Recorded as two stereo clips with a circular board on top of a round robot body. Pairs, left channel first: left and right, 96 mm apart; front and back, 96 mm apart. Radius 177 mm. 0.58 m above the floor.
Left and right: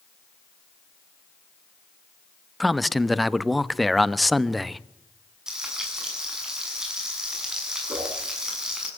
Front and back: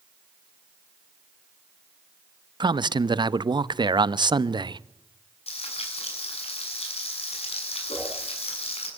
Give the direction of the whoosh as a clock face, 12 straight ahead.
1 o'clock.